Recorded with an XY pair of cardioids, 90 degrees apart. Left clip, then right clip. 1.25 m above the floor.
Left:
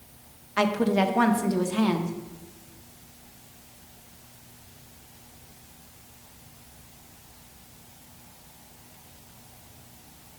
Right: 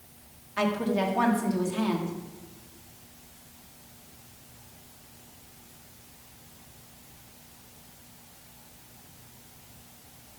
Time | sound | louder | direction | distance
0.6 | a woman speaking | left 4 dB | 45° left | 1.0 m